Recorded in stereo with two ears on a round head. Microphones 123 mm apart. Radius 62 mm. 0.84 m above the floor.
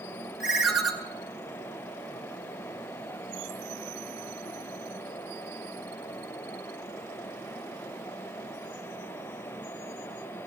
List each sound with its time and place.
0.4 s a ringtone: centre (ahead or behind), 1.1 m